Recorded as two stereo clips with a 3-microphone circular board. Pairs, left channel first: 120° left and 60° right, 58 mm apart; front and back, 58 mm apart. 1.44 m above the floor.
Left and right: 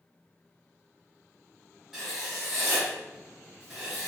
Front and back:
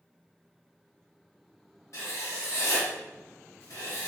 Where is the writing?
25° left, 1.2 m.